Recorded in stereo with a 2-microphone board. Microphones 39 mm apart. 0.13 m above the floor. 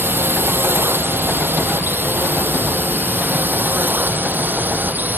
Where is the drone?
70° right (ahead or behind); by 5.2 s 55° right (ahead or behind).